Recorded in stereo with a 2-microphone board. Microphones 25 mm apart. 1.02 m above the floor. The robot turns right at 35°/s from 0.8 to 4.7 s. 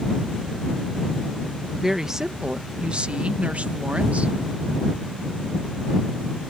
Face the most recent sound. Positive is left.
turn(degrees=-65)